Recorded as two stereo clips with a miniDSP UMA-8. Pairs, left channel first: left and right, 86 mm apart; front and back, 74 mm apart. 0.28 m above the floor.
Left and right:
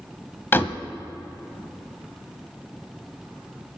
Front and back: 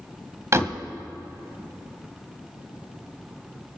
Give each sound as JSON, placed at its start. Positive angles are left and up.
{"t": 0.5, "sound": "a door slam", "azimuth_deg": 145, "distance_m": 1.0}